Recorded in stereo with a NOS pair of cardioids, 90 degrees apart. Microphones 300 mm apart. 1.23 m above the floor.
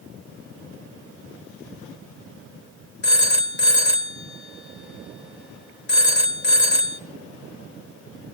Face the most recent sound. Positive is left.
turn(degrees=35)